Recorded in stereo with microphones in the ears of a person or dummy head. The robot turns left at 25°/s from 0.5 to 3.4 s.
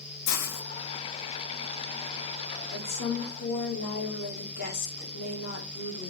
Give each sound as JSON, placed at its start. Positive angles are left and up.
{"t": 0.3, "sound": "a hiss", "side_deg": 70, "distance_m": 0.6}
{"t": 2.7, "sound": "a woman speaking", "side_deg": 35, "distance_m": 1.2}